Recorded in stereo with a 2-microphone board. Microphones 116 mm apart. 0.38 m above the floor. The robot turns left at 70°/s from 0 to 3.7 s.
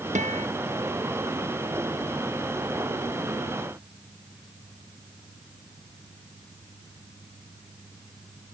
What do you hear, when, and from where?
0.1 s a guitar: 90° right; by 0.5 s 65° right (ahead or behind)